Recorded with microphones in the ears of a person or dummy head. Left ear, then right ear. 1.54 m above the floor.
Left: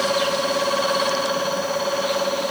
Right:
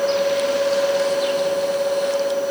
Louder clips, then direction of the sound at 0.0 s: Right 2 dB; 50° left (ahead or behind).